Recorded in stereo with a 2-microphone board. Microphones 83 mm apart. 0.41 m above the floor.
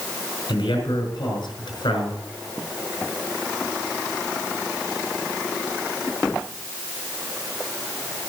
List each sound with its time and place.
0.5 s a man speaking: 75° left (ahead or behind), 5.5 m